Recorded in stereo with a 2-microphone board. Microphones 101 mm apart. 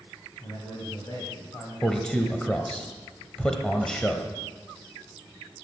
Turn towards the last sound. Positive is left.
turn(degrees=10)  # may be behind; listen again after turning